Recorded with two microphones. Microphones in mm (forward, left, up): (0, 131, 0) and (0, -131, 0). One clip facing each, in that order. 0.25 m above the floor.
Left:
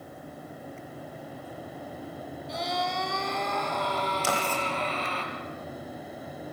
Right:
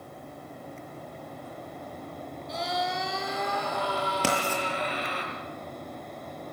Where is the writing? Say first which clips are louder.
Right 2 dB; 75° right (ahead or behind), 6.5 m.